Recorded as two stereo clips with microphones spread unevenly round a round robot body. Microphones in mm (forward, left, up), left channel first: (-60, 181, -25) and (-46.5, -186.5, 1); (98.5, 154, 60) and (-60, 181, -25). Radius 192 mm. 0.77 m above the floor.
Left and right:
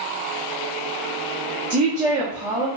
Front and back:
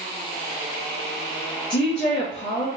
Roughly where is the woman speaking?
Ahead.